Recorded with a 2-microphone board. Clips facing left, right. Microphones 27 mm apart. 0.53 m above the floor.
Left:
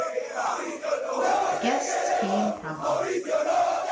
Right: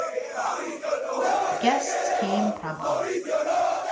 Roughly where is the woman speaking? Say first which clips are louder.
Right 2 dB; right.